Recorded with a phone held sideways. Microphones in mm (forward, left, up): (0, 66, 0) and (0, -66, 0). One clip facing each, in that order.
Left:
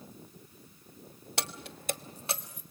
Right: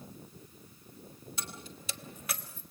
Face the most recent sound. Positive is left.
turn(degrees=15)  # may be behind; listen again after turning